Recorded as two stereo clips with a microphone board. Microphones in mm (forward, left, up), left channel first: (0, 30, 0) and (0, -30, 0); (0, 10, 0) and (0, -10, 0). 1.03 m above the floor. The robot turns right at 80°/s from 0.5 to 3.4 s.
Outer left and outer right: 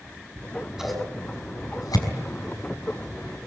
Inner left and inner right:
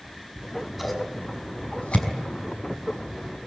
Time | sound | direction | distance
0.4 | scissors | 30° right (ahead or behind) | 5 m